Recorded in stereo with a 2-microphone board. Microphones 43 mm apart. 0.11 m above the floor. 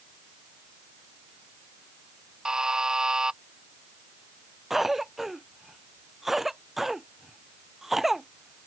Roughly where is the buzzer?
Centre.